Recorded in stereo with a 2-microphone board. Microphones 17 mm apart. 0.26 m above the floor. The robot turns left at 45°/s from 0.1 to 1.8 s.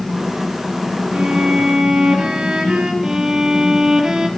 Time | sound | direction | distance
1.1 | a violin | 80° right | 2 m
3.0 | a violin | 30° right (ahead or behind) | 1.1 m